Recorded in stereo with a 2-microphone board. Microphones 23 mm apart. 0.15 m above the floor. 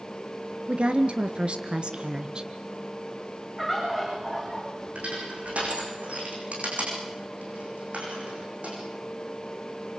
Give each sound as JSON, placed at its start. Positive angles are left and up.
{"t": 0.7, "sound": "a woman speaking", "side_deg": -60, "distance_m": 2.5}
{"t": 3.6, "sound": "a bird", "side_deg": -15, "distance_m": 9.0}
{"t": 5.0, "sound": "crushing", "side_deg": -80, "distance_m": 8.0}